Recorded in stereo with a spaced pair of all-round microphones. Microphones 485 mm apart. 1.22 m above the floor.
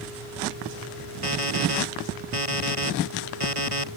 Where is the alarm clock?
85° right.